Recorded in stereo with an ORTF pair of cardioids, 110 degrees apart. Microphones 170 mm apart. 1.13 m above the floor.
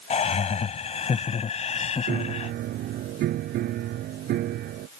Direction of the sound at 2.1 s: 70° right.